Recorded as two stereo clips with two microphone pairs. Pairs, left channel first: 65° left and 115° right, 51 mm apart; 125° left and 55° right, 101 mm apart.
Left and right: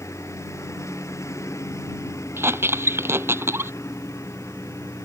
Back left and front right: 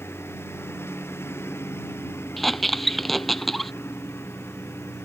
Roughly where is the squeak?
Behind right.